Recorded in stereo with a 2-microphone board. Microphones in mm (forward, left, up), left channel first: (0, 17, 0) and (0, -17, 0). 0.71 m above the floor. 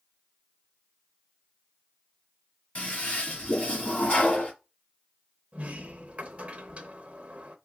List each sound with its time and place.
2.8 s a toilet flushing: 40° left (ahead or behind), 1.7 m
5.5 s a sliding door: 45° right (ahead or behind), 0.6 m